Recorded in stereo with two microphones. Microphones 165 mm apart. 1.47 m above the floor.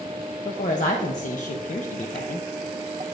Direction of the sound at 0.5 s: 50° left (ahead or behind).